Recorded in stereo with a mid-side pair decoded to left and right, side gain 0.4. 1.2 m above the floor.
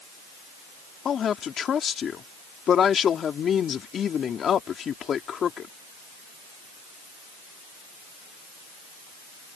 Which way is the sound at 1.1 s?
60° left.